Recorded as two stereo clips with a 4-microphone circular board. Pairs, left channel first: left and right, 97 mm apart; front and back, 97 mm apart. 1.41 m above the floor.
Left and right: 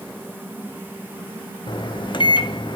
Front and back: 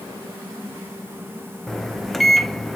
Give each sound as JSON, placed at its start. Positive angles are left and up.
{"t": 1.7, "sound": "a microwave", "azimuth_deg": 85, "distance_m": 0.6}